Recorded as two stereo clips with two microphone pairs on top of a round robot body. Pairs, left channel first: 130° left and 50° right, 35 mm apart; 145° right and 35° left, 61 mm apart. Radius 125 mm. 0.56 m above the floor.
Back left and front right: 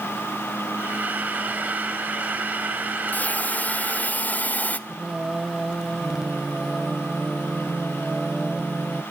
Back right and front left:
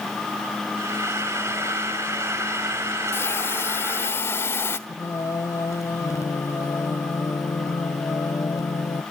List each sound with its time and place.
0.8 s frying: 5° right, 5 m
3.1 s a hiss: 165° left, 1.2 m
4.9 s singing: 120° right, 0.9 m